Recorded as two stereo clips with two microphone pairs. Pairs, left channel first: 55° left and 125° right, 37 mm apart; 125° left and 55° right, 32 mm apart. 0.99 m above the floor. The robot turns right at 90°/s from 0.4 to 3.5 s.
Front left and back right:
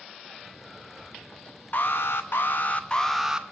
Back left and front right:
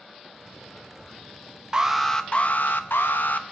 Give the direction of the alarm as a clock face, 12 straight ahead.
12 o'clock.